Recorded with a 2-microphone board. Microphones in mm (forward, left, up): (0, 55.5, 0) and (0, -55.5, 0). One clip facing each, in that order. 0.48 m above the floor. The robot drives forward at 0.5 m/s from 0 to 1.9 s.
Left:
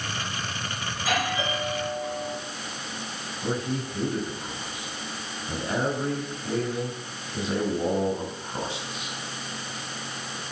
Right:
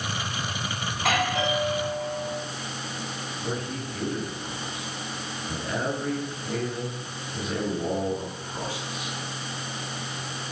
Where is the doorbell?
70° right (ahead or behind), 5.5 m; by 2.4 s 75° right (ahead or behind), 5.5 m.